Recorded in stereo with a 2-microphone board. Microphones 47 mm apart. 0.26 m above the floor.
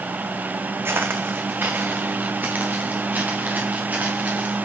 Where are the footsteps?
60° right (ahead or behind), 0.8 m; by 4.6 s 40° right (ahead or behind), 3 m.